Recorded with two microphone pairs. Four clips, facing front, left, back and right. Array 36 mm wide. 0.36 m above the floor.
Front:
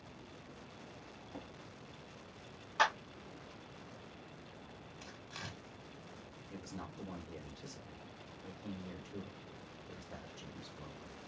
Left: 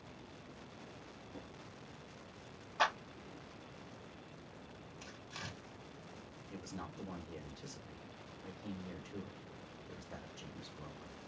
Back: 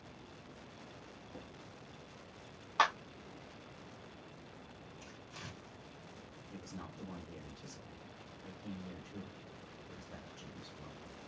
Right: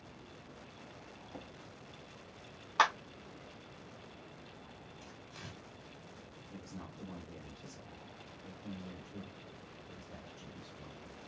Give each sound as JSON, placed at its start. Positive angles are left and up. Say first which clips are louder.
{"t": 1.3, "sound": "a drawer", "louder": "right 3 dB, front 3 dB", "azimuth_deg": -65, "distance_m": 0.9}
{"t": 2.8, "sound": "a clap", "louder": "right 5 dB, back 1 dB", "azimuth_deg": -115, "distance_m": 2.5}
{"t": 5.0, "sound": "tearing paper", "louder": "left 4 dB, front 3 dB", "azimuth_deg": 40, "distance_m": 1.8}
{"t": 6.5, "sound": "a man speaking", "louder": "left 2 dB, front 2 dB", "azimuth_deg": 55, "distance_m": 1.4}